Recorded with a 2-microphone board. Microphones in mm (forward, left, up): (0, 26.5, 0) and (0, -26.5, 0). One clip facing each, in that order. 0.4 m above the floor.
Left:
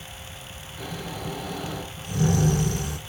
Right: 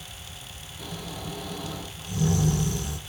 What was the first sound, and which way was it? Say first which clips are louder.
Snoring: left 3 dB; 75° left (ahead or behind).